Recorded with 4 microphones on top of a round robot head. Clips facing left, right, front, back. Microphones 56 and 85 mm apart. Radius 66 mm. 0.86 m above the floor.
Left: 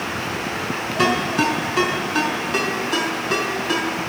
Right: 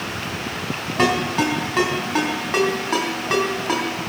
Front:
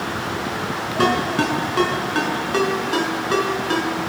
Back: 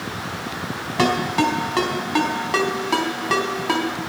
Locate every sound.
1.0 s a ringtone: 150° right, 4 m